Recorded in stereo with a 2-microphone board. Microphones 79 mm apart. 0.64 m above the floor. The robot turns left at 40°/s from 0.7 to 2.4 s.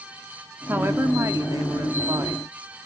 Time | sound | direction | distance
0.7 | a woman speaking | 40° right | 1.3 m